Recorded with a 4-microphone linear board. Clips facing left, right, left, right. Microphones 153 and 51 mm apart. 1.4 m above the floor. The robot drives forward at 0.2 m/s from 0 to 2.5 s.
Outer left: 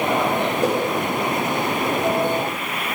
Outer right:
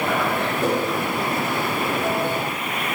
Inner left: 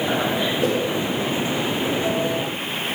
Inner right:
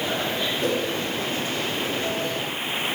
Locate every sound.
0.6 s a whoosh: 15° left (ahead or behind), 1.2 m